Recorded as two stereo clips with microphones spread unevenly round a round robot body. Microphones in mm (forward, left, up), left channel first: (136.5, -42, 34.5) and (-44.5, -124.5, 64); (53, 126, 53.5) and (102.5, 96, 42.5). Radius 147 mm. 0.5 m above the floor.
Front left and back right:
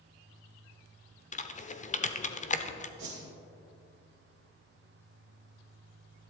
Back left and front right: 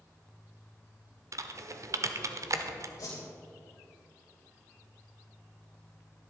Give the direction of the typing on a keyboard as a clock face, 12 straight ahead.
1 o'clock.